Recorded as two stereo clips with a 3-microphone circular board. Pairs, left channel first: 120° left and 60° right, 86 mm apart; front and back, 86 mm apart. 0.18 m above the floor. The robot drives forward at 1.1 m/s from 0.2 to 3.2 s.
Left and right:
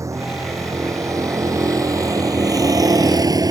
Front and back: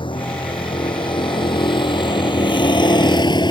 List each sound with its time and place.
0.0 s a vehicle: 10° right; by 3.5 s 20° right